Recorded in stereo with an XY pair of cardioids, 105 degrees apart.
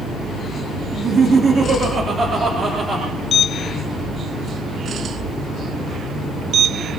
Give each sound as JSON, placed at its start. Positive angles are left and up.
{"t": 0.9, "sound": "laughter", "azimuth_deg": -45, "distance_m": 4.0}